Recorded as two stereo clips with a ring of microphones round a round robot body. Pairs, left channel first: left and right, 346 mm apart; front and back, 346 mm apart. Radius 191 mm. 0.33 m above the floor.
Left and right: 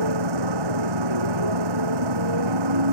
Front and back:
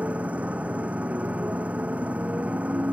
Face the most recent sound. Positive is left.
turn(degrees=-95)